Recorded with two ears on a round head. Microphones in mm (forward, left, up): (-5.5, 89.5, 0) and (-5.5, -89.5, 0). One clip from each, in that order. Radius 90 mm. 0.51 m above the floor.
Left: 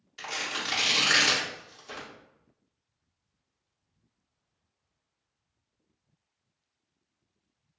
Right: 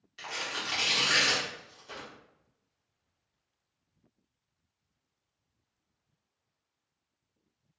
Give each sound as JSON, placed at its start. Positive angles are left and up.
{"t": 0.2, "sound": "tearing paper", "side_deg": 15, "distance_m": 1.0}